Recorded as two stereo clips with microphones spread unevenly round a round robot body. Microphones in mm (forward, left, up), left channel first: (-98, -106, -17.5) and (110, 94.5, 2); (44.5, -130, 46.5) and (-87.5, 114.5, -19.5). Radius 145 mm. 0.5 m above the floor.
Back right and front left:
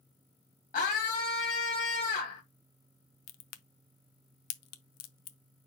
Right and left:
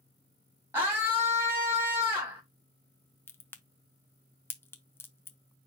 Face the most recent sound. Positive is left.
turn(degrees=-150)